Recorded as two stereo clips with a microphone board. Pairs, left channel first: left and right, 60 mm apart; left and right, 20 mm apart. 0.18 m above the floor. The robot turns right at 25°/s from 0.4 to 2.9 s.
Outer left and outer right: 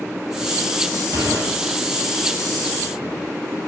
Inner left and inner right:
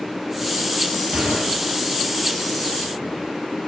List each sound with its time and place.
1.1 s a gunshot: 60° right (ahead or behind), 1.0 m; by 1.6 s 50° right (ahead or behind), 1.0 m